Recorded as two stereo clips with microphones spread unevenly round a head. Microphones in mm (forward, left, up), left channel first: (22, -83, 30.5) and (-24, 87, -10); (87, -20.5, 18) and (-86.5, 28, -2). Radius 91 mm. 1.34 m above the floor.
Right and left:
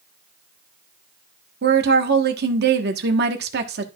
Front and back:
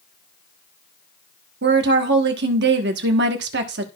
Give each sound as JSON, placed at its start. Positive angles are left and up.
{"t": 1.6, "sound": "a woman speaking", "azimuth_deg": 135, "distance_m": 1.2}